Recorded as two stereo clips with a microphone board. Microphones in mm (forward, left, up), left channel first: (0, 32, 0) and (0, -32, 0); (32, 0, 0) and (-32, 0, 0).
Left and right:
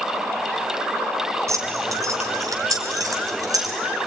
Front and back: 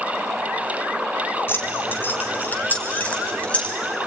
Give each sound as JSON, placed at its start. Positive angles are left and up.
{"t": 1.5, "sound": "keys jangling", "azimuth_deg": -55, "distance_m": 3.0}